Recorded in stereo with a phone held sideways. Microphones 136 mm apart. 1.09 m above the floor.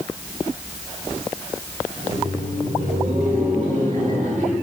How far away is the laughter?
About 3 m.